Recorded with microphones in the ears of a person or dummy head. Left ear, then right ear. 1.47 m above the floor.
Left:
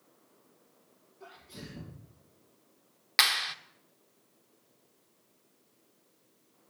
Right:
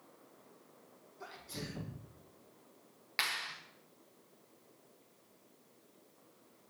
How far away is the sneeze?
About 2 m.